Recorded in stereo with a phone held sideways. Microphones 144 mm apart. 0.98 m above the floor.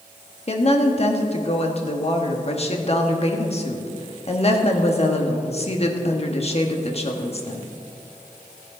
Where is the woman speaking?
45° left (ahead or behind), 1.4 m.